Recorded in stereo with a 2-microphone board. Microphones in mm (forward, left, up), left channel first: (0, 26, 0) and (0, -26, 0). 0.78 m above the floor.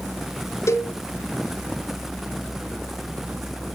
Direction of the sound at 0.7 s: 65° left (ahead or behind).